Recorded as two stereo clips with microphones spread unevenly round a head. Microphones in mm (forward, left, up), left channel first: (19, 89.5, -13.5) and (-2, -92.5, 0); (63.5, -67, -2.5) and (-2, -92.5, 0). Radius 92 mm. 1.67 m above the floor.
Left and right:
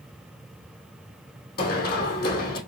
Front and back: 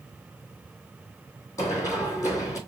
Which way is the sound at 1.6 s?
70° left.